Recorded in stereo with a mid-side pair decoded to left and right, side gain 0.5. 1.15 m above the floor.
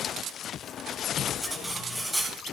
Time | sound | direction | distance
1.4 | cutlery clinking | 5° right | 4 m